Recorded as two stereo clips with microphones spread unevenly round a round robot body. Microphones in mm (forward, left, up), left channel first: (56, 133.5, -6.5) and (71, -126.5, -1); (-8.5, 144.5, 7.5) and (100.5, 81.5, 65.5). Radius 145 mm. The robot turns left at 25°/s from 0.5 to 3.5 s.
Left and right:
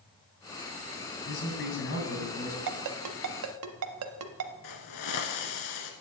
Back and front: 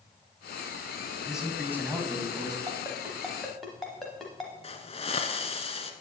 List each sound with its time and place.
1.3 s a man speaking: 65° left, 2.5 m; by 2.6 s 35° left, 2.5 m
2.7 s a ringtone: 105° right, 0.6 m; by 4.5 s 125° right, 0.6 m
4.6 s a hiss: 100° left, 1.2 m